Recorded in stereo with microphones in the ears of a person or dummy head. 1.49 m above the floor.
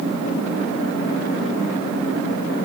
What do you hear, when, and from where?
Only background noise.